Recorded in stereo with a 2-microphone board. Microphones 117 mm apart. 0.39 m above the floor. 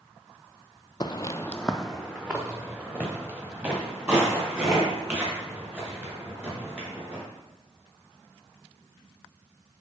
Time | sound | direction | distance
1.0 | footsteps | 40° left (ahead or behind) | 0.5 m